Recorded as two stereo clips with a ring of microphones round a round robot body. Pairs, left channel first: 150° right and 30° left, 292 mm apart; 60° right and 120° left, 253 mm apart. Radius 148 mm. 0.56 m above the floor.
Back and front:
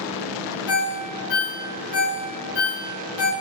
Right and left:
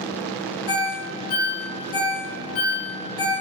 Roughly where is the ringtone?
Right.